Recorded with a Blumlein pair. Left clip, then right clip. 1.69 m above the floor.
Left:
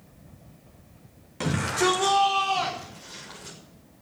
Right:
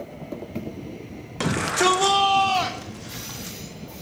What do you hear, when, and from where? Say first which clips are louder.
1.4 s a shout: right 4 dB; 70° right, 2 m